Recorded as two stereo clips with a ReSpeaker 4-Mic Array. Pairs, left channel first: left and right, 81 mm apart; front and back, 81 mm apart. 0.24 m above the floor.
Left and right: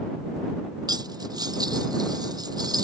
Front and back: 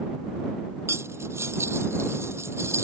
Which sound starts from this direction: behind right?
Cutlery clinking, at 0.9 s.